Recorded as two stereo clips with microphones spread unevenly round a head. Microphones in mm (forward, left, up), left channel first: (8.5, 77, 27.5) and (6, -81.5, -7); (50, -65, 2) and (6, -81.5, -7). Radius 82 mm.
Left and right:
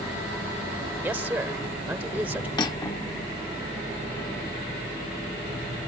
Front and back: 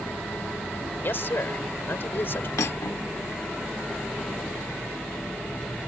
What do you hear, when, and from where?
1.0 s a man speaking: 10° right
2.6 s cutlery clinking: 25° left